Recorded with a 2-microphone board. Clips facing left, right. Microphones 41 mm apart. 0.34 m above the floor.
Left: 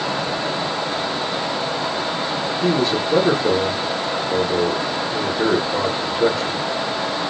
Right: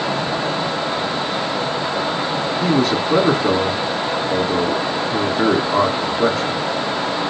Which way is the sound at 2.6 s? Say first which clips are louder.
Right 1 dB; 70° right (ahead or behind).